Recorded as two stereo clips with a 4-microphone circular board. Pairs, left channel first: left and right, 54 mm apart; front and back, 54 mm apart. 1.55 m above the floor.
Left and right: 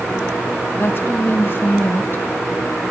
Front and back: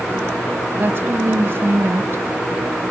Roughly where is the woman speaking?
Behind left.